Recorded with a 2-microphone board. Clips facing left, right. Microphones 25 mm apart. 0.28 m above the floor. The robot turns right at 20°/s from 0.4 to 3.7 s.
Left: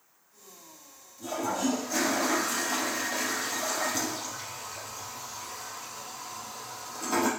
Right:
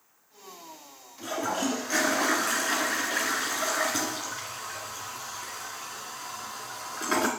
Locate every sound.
1.2 s a toilet flushing: 125° right, 1.7 m; by 7.3 s 75° right, 1.7 m